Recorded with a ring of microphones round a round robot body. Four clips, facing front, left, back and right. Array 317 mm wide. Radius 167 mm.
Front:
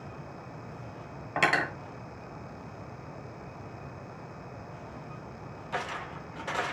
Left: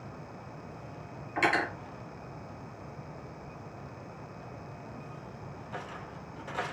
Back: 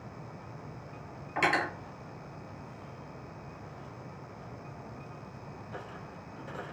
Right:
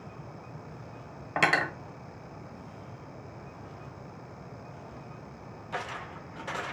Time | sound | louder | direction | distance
1.4 | cutlery clinking | right 1 dB, front 1 dB | 60° right | 1.1 m